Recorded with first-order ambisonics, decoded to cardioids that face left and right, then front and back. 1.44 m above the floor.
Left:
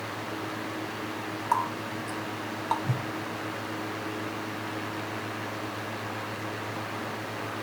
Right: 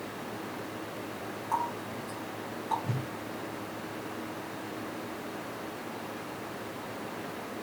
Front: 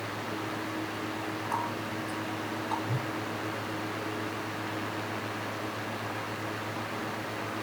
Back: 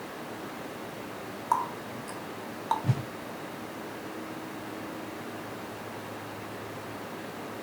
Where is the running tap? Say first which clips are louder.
Left 4 dB, back 6 dB; 145° left, 1.1 m.